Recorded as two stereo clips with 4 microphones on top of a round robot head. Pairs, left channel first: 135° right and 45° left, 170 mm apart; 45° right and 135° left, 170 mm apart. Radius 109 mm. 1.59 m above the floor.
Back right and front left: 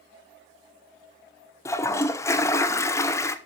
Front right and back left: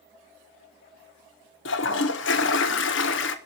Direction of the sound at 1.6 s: 60° right.